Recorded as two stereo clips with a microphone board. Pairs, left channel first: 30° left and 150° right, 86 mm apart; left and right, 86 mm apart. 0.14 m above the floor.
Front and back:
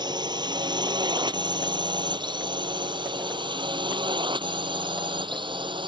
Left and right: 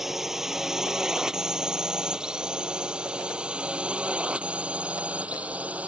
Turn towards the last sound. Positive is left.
turn(degrees=-165)